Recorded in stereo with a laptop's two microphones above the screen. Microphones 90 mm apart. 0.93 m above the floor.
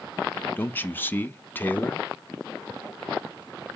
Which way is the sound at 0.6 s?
20° left (ahead or behind).